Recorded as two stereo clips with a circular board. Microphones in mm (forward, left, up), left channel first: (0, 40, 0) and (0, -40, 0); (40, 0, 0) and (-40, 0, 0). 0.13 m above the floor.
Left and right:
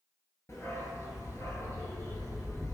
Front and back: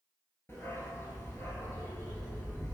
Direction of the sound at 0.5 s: 50° left.